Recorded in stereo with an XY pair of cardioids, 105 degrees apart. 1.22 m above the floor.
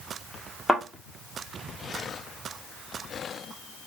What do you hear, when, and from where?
0.7 s a thud: straight ahead, 1.5 m